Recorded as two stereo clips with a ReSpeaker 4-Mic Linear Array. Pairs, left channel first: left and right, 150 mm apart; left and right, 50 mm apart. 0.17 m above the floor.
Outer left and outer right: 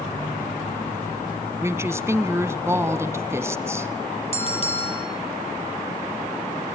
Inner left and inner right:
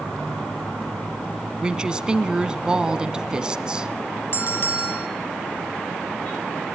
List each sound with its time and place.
1.6 s a woman speaking: 20° right (ahead or behind), 1.3 m
4.3 s a bell: 50° left (ahead or behind), 2 m